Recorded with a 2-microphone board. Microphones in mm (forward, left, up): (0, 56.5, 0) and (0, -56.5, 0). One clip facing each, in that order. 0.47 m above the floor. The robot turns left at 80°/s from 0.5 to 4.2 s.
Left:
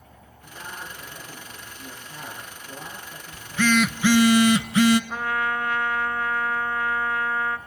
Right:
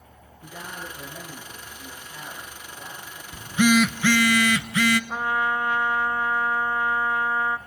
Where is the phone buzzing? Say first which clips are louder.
Right 2 dB; 140° right, 0.5 m; by 5.0 s 150° left, 0.5 m.